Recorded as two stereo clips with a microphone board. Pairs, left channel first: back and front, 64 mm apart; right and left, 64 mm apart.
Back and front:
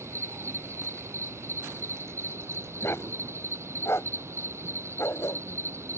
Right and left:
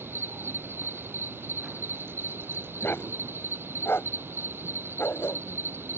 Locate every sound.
0.0 s an insect: 40° left
2.8 s a dog barking: 140° right